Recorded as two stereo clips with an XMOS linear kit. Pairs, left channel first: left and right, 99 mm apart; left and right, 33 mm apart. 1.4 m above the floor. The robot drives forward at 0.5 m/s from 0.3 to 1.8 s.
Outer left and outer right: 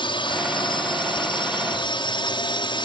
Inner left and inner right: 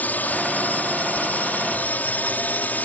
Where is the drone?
55° left (ahead or behind).